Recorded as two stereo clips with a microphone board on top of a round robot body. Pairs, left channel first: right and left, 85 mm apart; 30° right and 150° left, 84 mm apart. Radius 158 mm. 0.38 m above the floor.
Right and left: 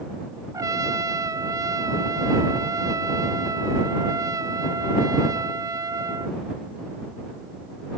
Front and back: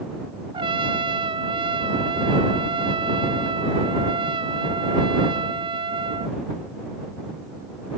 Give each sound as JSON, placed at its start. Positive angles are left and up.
{"t": 0.5, "sound": "a trumpet", "azimuth_deg": 140}